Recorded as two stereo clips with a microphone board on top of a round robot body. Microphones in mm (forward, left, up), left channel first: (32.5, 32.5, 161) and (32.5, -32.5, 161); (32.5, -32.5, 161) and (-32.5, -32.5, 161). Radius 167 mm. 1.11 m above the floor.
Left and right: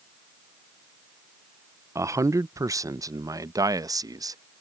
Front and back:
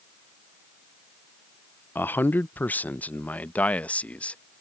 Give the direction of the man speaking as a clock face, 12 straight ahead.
2 o'clock.